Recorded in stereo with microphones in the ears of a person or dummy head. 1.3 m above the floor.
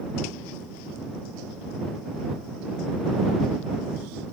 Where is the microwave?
No microwave in this recording.